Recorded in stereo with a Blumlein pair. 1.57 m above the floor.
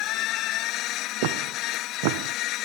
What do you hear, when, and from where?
0.0 s a machine running: 35° left
1.2 s footsteps: 45° right